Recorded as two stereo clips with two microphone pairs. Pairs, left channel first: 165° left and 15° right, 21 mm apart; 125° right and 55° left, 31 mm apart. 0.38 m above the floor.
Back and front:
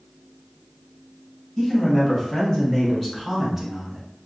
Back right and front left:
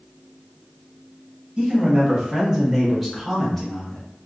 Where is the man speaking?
115° left, 1.7 m; by 4.1 s 75° right, 1.0 m.